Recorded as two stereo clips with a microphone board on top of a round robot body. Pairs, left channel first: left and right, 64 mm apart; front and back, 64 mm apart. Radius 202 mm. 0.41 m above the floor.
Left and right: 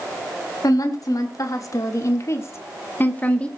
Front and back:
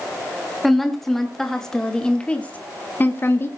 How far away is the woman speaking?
About 2.5 m.